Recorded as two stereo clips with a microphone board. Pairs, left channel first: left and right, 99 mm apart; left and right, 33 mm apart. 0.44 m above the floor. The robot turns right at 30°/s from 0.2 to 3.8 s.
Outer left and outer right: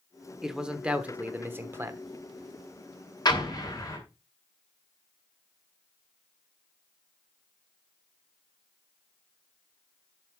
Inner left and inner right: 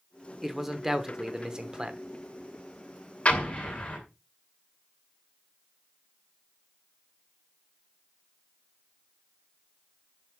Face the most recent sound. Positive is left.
turn(degrees=40)  # may be behind; listen again after turning